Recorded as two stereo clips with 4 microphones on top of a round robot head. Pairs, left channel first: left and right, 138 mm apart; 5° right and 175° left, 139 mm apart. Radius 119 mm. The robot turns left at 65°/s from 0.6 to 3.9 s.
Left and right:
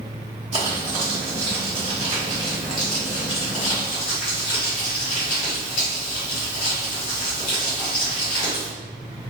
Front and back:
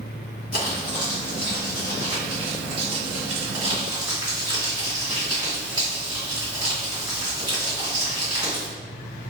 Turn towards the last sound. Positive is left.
turn(degrees=105)